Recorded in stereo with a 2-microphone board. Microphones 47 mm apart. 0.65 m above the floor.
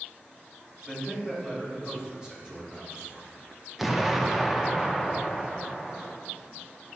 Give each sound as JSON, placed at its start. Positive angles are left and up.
{"t": 0.8, "sound": "a man speaking", "side_deg": -20, "distance_m": 3.5}
{"t": 3.8, "sound": "an explosion", "side_deg": -5, "distance_m": 0.7}